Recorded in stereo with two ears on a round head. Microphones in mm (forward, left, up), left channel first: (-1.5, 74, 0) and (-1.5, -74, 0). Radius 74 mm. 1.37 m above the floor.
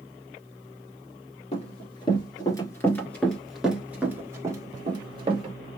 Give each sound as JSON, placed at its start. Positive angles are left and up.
{"t": 1.5, "sound": "running footsteps", "side_deg": 40, "distance_m": 1.6}